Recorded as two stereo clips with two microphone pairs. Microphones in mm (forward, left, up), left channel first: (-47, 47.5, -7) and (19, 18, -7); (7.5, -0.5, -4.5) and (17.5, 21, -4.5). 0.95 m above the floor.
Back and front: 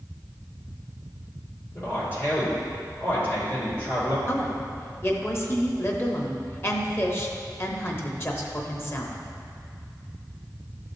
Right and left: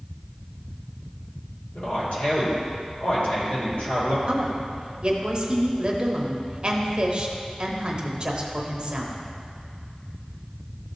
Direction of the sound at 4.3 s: 110° left.